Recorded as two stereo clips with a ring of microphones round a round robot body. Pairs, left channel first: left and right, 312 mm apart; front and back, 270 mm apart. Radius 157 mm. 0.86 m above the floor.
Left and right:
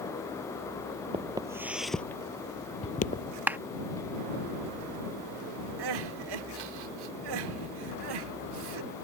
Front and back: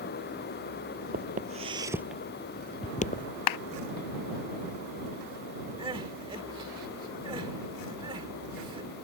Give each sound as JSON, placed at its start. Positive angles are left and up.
{"t": 1.1, "sound": "footsteps", "azimuth_deg": -155}
{"t": 3.5, "sound": "a clap", "azimuth_deg": -5}
{"t": 5.8, "sound": "crying", "azimuth_deg": -105}